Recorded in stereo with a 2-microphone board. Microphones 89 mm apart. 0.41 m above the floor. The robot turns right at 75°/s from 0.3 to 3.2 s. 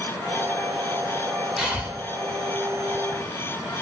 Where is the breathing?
5° right (ahead or behind), 0.7 m; by 1.9 s 20° right (ahead or behind), 0.7 m.